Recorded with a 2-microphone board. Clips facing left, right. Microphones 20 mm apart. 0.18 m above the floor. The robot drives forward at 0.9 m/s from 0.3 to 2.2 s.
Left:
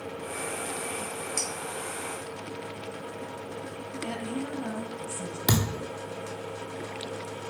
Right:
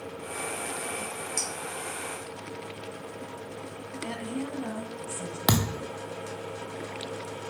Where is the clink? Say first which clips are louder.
Even; 5° right (ahead or behind), 2 m.